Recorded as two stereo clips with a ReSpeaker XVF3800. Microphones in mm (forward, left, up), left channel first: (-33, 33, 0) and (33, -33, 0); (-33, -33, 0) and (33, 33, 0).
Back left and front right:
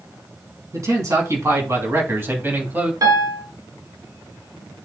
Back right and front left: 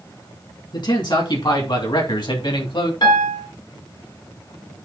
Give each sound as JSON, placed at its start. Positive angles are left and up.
{"t": 0.7, "sound": "a man speaking", "azimuth_deg": -100, "distance_m": 4.0}
{"t": 3.0, "sound": "a piano", "azimuth_deg": -95, "distance_m": 2.0}